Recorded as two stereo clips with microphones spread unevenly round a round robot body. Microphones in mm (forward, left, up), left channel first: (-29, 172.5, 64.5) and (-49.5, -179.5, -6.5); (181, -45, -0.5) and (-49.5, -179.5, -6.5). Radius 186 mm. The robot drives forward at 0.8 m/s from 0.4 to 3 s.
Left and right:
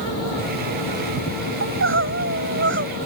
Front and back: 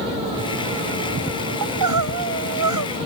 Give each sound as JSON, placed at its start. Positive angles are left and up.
{"t": 1.6, "sound": "crying", "azimuth_deg": -150}